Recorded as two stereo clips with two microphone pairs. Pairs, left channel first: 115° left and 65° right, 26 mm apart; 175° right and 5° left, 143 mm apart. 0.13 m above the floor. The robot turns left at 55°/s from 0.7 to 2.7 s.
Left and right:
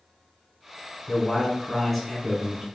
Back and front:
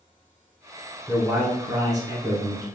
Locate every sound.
1.1 s a man speaking: 65° left, 1.1 m; by 2.6 s 20° right, 1.1 m